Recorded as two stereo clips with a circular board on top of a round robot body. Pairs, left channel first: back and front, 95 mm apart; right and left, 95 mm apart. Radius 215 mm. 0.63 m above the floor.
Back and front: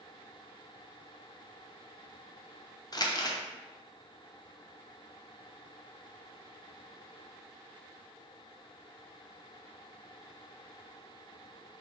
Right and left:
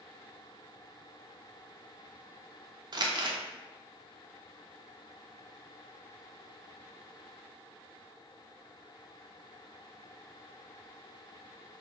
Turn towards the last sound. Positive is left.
turn(degrees=130)